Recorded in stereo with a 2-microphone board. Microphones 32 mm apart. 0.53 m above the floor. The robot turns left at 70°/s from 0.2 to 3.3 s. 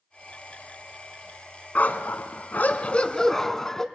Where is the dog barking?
125° left, 1.2 m; by 3.9 s 15° left, 1.2 m.